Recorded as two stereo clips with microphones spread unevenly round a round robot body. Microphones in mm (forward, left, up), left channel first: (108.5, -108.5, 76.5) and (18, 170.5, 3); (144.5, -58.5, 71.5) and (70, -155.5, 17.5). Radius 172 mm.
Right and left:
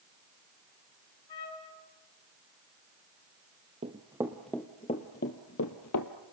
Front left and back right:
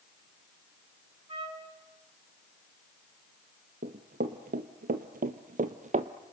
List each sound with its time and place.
1.3 s a trumpet: 90° right, 5.5 m
3.8 s running footsteps: 175° right, 1.0 m; by 6.1 s 90° right, 1.2 m